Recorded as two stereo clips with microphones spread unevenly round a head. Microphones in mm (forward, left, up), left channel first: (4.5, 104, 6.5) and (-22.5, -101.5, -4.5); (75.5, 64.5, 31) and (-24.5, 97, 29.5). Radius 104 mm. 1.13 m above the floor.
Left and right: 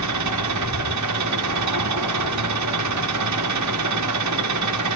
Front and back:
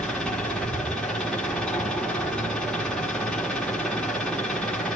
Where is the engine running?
105° right, 1.6 m.